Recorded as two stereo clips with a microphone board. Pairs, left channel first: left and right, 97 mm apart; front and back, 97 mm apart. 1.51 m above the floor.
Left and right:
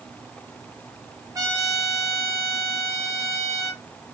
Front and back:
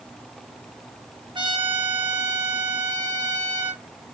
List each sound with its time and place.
1.4 s a trumpet: 145° right, 0.8 m